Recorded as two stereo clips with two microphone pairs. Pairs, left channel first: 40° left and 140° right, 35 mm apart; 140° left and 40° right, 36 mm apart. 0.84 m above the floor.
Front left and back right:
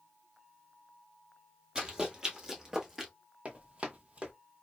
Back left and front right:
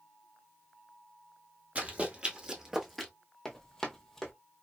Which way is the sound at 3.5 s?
145° right.